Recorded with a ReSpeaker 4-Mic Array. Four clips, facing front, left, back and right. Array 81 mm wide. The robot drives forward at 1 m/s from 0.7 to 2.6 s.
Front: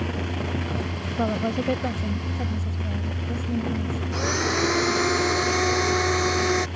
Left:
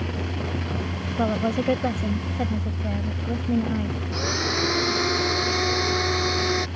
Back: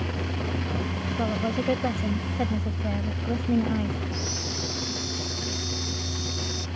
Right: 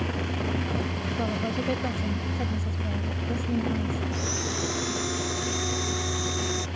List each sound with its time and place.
1.2 s a woman speaking: 55° left; by 4.0 s 145° left
4.1 s a blender: 25° left